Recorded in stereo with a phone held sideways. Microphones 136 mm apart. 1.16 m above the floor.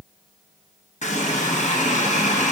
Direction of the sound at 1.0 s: 60° left (ahead or behind).